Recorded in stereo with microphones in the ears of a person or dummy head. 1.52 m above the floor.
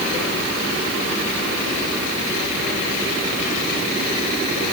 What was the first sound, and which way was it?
Only background noise.